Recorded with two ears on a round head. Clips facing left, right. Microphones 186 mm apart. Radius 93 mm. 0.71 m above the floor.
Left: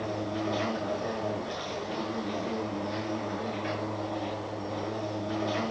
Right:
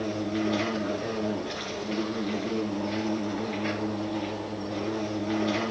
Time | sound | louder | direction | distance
0.0 | an insect | right 4 dB | 30° right (ahead or behind) | 7.5 m